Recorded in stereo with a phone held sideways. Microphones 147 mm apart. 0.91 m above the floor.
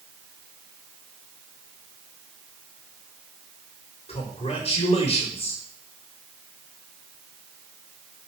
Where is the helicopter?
No helicopter in this recording.